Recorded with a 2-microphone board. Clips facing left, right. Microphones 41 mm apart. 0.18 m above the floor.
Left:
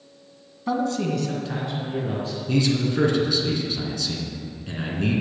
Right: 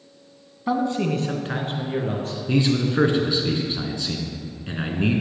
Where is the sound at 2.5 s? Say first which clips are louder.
Right 1 dB; 25° right (ahead or behind), 2 m.